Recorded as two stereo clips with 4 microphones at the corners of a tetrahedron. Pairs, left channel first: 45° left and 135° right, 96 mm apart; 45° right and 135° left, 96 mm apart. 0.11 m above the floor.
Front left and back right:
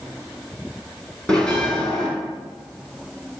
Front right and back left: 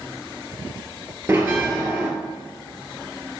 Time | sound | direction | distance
1.3 | a bell | 115° left | 1.5 m